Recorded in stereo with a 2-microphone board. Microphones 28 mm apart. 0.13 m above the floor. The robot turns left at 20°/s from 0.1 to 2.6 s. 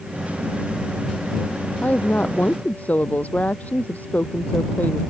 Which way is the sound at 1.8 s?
65° left (ahead or behind).